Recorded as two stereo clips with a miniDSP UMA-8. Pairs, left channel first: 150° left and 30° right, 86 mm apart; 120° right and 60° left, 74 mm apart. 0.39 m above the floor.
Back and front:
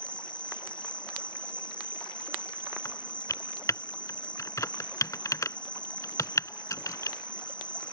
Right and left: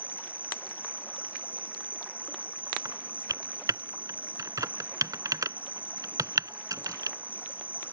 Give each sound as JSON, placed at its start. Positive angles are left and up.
{"t": 0.0, "sound": "an insect", "azimuth_deg": 175}
{"t": 2.9, "sound": "typing on a keyboard", "azimuth_deg": 100}